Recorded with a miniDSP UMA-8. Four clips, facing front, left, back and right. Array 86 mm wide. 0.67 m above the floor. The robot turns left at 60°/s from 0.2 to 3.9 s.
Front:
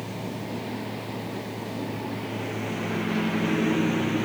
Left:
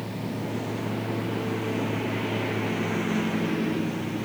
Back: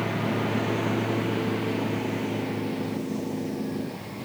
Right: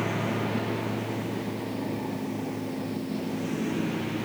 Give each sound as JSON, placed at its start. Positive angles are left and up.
{"t": 0.0, "sound": "a lawn mower", "azimuth_deg": -135}